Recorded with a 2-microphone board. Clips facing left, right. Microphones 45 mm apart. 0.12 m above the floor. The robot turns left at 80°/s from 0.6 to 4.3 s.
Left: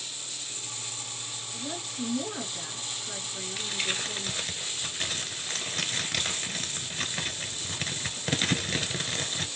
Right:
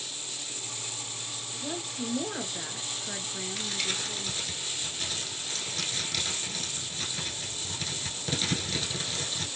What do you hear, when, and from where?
1.5 s a woman speaking: 10° left, 1.5 m; by 4.4 s 150° left, 1.5 m
3.6 s crumpling: 5° left (ahead or behind), 0.9 m; by 9.5 s 40° left (ahead or behind), 0.9 m